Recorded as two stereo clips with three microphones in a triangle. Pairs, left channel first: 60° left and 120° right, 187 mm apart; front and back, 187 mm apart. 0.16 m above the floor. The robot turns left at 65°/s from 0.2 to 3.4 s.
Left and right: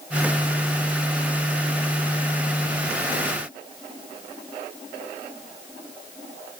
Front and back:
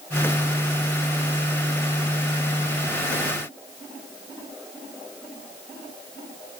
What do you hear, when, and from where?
Only background noise.